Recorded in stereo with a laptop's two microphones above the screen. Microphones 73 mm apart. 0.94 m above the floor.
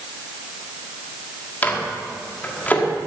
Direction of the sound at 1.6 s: 25° left (ahead or behind).